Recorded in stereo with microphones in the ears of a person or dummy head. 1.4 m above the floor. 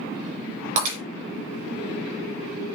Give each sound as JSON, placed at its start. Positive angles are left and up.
{"t": 0.8, "sound": "breaking glass", "side_deg": -45, "distance_m": 4.0}